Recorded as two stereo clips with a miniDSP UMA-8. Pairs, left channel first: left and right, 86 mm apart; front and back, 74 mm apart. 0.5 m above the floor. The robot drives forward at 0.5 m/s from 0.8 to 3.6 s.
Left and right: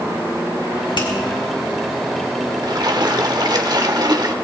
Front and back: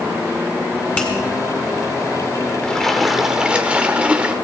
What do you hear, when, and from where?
1.0 s a finger snap: 70° left, 4 m
2.6 s a splash: 75° right, 1.0 m; by 4.3 s 110° right, 1.0 m